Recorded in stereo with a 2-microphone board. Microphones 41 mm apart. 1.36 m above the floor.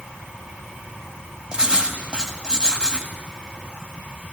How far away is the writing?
About 1.4 m.